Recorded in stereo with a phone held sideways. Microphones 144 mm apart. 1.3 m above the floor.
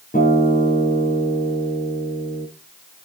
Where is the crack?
I don't hear a crack.